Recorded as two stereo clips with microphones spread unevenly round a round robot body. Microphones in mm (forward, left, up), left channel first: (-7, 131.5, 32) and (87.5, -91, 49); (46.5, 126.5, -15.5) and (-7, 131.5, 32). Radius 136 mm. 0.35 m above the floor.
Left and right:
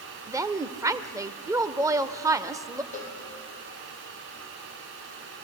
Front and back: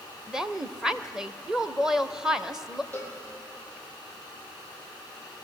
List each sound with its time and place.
0.3 s a woman speaking: 5° left, 1.1 m
2.9 s a cowbell: 50° left, 8 m